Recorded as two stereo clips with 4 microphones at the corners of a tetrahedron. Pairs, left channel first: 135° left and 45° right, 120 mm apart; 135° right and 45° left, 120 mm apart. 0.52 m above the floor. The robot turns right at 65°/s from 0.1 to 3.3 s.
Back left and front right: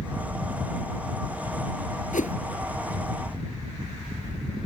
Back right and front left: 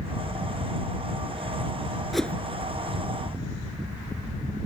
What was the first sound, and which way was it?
A whoosh, 135° left.